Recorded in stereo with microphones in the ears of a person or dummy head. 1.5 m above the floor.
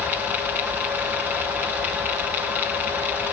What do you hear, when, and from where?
Only background noise.